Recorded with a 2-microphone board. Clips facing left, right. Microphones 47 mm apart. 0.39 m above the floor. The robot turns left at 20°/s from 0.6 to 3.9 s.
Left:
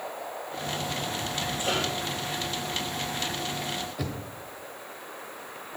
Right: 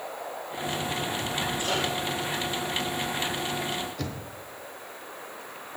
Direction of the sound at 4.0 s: 10° left (ahead or behind).